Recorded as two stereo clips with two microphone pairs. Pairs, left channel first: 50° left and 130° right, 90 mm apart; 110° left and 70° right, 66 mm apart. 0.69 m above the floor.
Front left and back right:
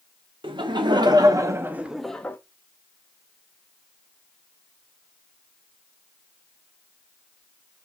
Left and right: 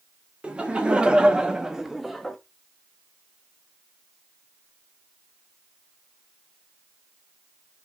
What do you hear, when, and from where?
0.4 s laughter: 140° right, 1.3 m; by 2.4 s 15° left, 0.7 m